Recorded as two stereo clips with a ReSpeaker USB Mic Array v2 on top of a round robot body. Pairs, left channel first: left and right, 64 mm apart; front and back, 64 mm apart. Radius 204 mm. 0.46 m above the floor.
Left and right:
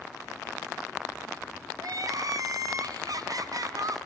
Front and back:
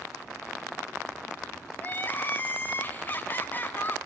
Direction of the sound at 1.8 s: 60° right.